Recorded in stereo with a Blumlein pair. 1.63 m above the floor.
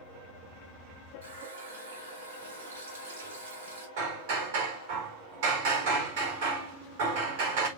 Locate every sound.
1.2 s a running tap: 65° right, 5.5 m
4.0 s hammering: 50° right, 4 m